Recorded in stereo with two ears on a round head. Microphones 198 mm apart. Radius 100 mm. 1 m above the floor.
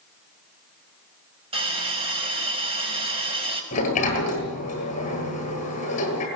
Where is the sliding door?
35° left (ahead or behind), 9.5 m.